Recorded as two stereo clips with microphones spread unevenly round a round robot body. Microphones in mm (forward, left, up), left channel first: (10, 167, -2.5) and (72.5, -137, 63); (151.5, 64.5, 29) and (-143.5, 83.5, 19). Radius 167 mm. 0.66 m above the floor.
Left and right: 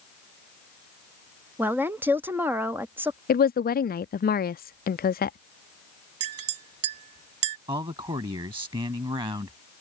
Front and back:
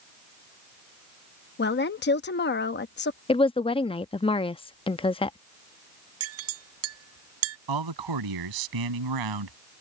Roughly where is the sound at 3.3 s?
Ahead left.